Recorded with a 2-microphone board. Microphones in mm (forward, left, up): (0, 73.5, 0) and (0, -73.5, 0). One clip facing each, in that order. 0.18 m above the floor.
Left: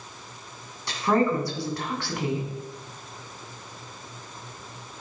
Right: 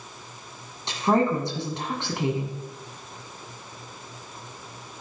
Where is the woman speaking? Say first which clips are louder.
Right 1 dB; 25° right (ahead or behind), 1.8 m.